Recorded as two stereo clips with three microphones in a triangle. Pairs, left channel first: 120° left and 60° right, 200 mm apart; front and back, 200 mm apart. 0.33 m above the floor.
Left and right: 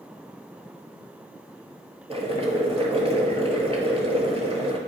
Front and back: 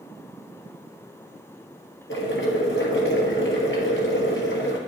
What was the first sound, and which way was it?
Boiling, straight ahead.